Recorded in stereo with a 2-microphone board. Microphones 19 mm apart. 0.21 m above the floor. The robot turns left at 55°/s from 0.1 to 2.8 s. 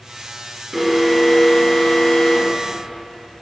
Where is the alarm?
165° right, 4 m; by 2.6 s 90° left, 4 m.